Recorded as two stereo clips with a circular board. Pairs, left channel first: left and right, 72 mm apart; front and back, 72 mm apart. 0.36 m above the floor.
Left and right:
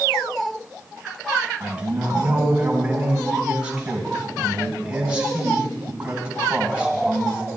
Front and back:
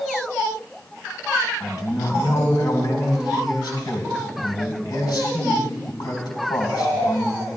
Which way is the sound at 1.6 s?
15° right.